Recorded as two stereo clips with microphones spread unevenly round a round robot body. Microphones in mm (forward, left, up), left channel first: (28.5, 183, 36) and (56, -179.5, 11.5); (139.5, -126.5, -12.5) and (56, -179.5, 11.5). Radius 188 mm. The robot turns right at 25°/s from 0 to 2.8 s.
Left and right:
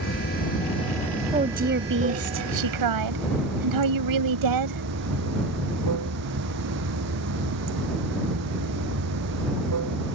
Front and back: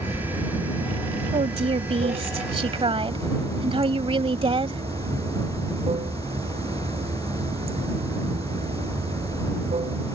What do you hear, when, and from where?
0.0 s running water: 150° left; by 10.1 s 140° right
1.3 s a woman speaking: 160° right; by 4.8 s 125° right